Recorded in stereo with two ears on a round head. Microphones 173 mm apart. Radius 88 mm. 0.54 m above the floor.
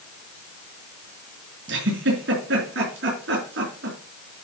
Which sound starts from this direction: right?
A giggle, at 1.7 s.